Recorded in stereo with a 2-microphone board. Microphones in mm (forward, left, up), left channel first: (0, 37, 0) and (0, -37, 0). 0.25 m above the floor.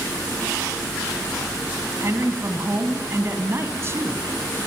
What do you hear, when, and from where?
2.0 s a woman speaking: 35° right (ahead or behind), 2 m